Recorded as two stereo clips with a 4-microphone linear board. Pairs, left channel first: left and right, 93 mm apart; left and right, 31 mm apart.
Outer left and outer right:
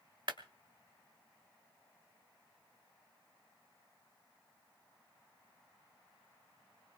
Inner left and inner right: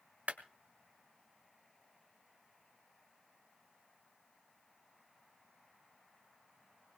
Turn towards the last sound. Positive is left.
turn(degrees=-60)  # may be behind; listen again after turning